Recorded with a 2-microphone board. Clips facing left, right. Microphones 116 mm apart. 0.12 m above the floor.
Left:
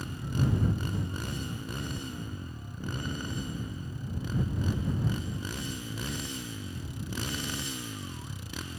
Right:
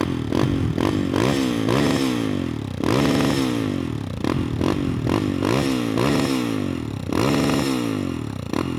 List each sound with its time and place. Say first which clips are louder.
0.0 s a motorcycle: right 12 dB; 75° right (ahead or behind); by 8.8 s 60° right (ahead or behind)